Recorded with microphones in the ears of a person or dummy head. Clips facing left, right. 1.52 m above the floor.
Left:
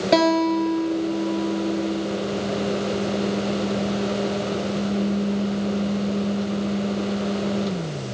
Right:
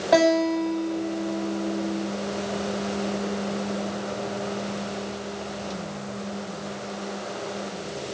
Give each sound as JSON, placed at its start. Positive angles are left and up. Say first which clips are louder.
{"t": 0.1, "sound": "a guitar", "louder": "left 1 dB", "side_deg": 35, "distance_m": 3.0}